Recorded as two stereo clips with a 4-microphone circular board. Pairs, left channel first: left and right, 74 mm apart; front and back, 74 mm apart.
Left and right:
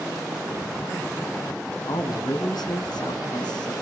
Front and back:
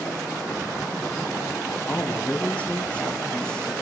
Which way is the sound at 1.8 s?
65° left.